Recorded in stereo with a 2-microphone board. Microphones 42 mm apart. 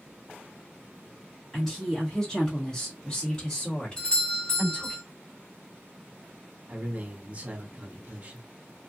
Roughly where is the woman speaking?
Centre.